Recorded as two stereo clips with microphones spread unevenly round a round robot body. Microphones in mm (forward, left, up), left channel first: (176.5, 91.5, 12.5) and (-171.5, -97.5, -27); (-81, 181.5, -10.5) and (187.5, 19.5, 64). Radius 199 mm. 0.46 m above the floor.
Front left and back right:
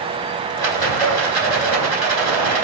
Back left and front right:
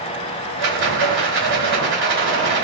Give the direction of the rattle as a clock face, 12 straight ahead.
2 o'clock.